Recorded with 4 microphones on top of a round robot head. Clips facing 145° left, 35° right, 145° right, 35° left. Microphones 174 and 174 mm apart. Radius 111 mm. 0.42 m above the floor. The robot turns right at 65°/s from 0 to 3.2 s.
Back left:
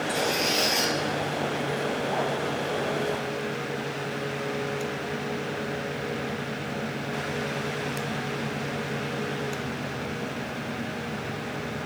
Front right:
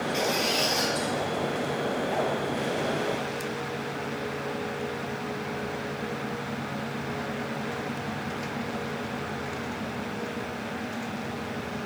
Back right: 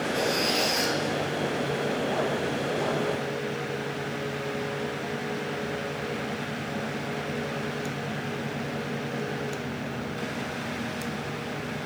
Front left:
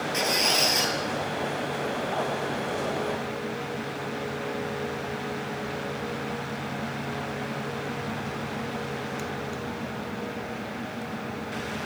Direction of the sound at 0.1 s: 35° left.